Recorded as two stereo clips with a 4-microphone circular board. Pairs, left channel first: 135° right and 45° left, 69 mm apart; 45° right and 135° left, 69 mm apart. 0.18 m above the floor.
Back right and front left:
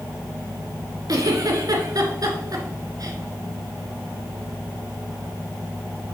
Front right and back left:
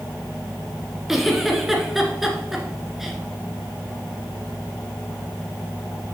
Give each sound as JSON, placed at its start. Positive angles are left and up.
{"t": 1.1, "sound": "a giggle", "azimuth_deg": 50, "distance_m": 1.5}